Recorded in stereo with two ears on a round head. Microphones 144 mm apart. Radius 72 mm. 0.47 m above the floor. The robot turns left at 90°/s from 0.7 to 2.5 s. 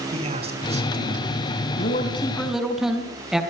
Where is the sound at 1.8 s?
65° left, 4.5 m; by 3.4 s 5° right, 4.5 m.